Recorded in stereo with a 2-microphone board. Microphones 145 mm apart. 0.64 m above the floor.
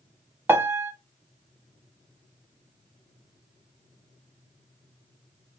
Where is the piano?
15° right (ahead or behind), 0.7 m.